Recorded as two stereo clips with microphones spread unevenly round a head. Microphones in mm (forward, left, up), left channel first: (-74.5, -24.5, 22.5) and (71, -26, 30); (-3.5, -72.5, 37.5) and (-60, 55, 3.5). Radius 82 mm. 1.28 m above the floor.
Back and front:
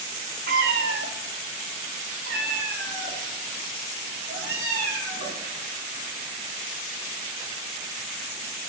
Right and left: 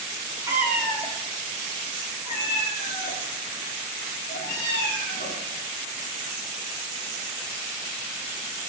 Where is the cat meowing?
35° left, 1.0 m; by 5.4 s 25° right, 5.5 m.